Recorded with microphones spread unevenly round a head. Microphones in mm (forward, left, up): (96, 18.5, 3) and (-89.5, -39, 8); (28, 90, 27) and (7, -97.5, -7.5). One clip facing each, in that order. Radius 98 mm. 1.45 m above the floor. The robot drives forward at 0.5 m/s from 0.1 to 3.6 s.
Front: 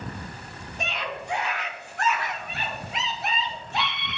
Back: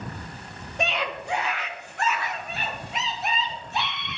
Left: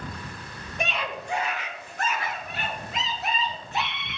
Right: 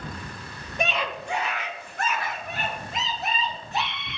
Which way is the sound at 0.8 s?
125° right.